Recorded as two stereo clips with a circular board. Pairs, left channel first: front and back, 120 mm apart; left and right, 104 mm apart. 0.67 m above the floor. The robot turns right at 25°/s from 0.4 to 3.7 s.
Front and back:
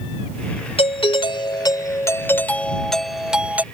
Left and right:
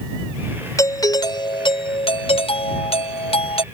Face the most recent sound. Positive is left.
turn(degrees=105)